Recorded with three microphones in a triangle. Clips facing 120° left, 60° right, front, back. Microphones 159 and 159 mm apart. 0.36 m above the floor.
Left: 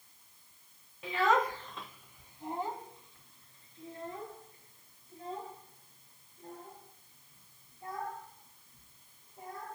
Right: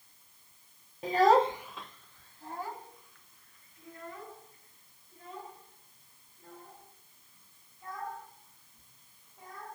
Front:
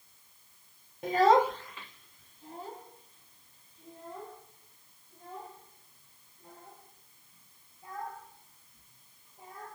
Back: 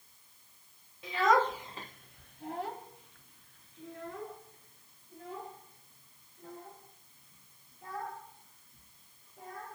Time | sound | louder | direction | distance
1.0 | a child speaking | right 6 dB, front 4 dB | 20° right | 0.9 m